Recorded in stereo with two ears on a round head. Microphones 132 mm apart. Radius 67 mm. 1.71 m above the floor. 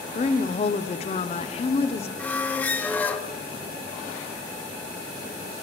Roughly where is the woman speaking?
Left.